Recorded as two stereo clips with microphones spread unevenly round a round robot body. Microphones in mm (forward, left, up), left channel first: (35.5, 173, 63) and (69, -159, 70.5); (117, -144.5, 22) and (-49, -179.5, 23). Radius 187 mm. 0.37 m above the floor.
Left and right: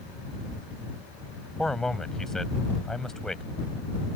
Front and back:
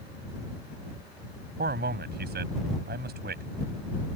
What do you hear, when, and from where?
1.6 s a man speaking: 175° right